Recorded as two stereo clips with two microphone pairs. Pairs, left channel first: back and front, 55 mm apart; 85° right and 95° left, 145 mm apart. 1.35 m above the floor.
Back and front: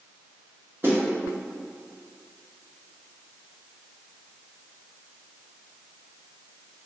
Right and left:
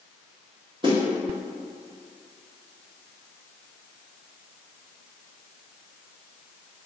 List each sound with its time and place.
0.8 s a snare drum: 45° left, 1.7 m